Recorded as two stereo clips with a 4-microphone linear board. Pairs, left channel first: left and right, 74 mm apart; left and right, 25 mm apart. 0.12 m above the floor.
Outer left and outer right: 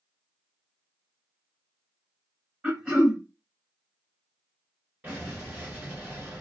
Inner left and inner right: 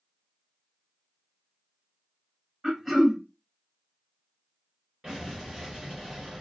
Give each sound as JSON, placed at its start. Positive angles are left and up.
{"t": 2.6, "sound": "throat clearing", "side_deg": -10, "distance_m": 1.2}
{"t": 5.0, "sound": "an explosion", "side_deg": -25, "distance_m": 1.4}